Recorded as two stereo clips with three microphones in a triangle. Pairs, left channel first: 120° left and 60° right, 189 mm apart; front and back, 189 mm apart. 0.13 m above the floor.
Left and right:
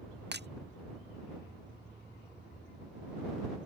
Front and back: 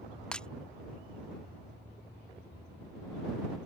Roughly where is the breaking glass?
Right.